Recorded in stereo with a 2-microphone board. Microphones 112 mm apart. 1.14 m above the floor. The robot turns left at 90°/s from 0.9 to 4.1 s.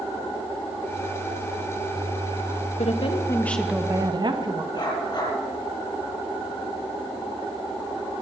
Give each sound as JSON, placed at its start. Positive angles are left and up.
{"t": 2.8, "sound": "a woman speaking", "azimuth_deg": 75, "distance_m": 1.4}
{"t": 4.7, "sound": "a dog barking", "side_deg": 40, "distance_m": 6.0}